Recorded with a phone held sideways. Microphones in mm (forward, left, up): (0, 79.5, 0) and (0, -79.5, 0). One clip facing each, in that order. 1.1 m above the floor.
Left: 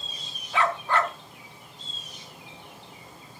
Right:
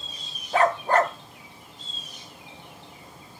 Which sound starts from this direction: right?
A dog barking, at 0.5 s.